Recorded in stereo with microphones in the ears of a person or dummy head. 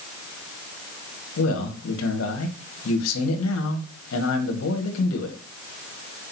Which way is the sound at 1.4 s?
80° left.